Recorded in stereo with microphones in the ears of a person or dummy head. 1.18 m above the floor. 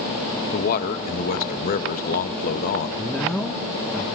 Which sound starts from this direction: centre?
A man speaking, at 3.0 s.